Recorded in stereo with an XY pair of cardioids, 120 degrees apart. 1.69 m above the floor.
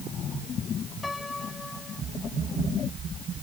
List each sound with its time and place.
1.0 s a piano: 15° left